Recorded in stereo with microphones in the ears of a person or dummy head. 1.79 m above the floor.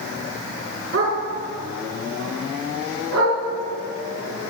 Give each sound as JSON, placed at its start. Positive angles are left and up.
{"t": 0.9, "sound": "a dog barking", "side_deg": -70, "distance_m": 6.5}